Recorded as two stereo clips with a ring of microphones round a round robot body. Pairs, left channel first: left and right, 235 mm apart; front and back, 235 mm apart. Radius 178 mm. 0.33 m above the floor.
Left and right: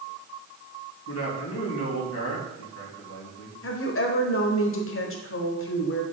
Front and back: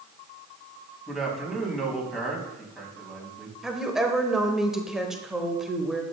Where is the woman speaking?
90° left, 1.3 m.